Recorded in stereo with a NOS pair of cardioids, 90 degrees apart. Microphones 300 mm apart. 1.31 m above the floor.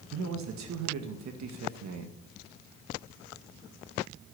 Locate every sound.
0.1 s a man speaking: 70° right, 2.0 m